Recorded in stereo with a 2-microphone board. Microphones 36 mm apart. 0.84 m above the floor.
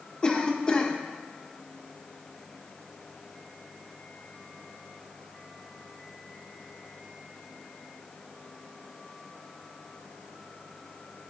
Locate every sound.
0.2 s a cough: 20° left (ahead or behind), 0.7 m